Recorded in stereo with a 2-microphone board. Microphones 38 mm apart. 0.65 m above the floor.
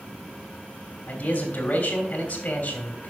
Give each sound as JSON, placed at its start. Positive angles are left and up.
{"t": 1.1, "sound": "a man speaking", "side_deg": 40, "distance_m": 3.0}